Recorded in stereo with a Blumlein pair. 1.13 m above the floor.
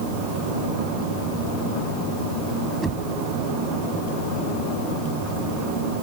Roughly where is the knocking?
Ahead.